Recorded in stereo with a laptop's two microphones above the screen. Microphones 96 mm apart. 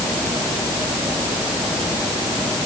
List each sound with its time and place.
Only background noise.